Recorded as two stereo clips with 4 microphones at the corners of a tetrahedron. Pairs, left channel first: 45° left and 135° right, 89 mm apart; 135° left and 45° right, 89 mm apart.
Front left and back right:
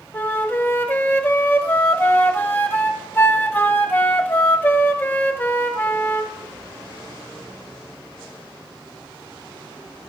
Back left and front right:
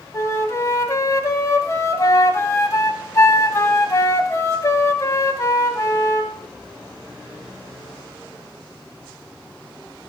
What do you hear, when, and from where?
0.1 s a flute: 100° left, 1.0 m